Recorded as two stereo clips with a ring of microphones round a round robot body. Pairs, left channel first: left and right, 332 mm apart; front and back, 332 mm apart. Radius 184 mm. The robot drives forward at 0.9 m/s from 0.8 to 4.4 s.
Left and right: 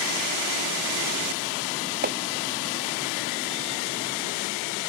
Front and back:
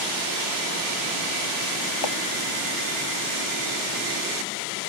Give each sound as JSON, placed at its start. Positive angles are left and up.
{"t": 2.0, "sound": "chopping", "azimuth_deg": -30}